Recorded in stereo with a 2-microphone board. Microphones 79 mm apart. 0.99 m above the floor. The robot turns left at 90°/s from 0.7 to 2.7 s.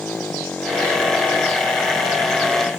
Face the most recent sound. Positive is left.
turn(degrees=-20)  # may be behind; listen again after turning